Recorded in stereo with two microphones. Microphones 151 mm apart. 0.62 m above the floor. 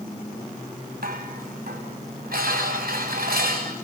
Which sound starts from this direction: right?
Dishes clattering, at 1.0 s.